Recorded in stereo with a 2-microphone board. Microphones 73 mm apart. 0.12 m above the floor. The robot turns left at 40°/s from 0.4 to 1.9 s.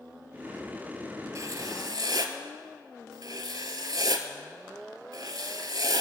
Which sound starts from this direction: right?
Writing, at 1.4 s.